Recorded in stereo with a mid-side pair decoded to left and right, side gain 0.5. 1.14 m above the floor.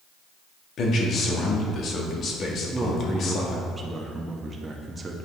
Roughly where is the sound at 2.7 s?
Ahead.